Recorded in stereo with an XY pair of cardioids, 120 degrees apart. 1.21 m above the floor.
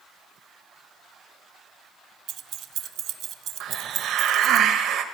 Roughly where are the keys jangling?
Right.